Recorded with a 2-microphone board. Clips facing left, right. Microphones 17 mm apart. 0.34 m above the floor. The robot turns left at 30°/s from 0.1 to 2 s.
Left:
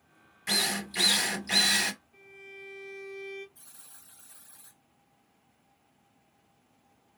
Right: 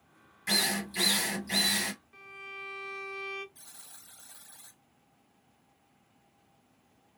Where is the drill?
175° left, 0.9 m; by 1.9 s 130° left, 0.9 m.